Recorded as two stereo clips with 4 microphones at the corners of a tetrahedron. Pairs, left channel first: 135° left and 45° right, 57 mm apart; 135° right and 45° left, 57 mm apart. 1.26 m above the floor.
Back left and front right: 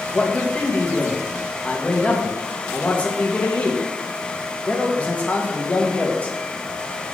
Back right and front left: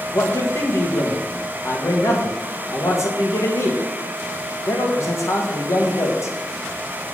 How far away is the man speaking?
About 1.8 m.